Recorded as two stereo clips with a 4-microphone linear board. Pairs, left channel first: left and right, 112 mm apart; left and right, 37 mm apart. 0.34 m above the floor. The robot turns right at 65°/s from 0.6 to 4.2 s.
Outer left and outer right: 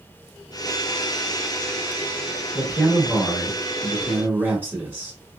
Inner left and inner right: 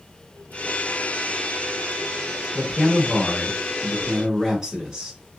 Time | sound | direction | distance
2.5 | a man speaking | 25° left (ahead or behind) | 1.1 m